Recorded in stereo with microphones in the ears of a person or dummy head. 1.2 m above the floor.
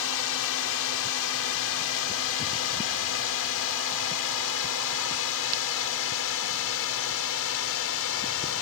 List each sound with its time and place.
0.0 s a drone: 65° left (ahead or behind)